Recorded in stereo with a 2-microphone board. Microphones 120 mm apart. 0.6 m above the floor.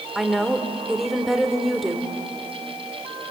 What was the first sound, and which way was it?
A woman speaking, centre (ahead or behind).